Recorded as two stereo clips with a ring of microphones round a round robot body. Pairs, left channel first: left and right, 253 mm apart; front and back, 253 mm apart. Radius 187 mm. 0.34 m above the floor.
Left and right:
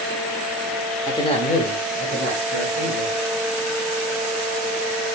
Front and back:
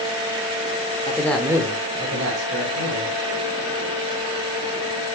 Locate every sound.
1.1 s a man speaking: 30° left, 1.1 m; by 3.1 s 140° left, 3 m